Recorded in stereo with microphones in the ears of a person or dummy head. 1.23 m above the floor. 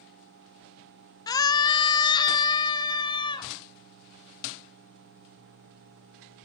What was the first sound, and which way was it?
A scream, 20° left (ahead or behind).